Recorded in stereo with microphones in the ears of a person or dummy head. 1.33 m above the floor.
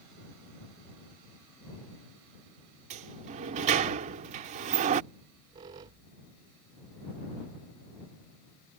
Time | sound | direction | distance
2.9 | a sliding door | 35° right (ahead or behind) | ?
5.1 | a squeak | 20° right (ahead or behind) | ?